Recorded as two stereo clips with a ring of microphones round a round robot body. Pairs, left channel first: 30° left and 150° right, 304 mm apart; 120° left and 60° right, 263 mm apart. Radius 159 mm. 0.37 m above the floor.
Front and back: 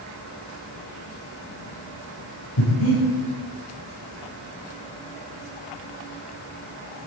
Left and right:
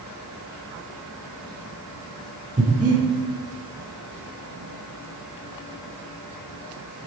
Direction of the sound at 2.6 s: 5° left.